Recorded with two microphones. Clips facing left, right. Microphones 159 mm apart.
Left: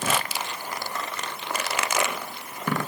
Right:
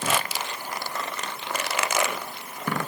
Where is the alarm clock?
I don't hear an alarm clock.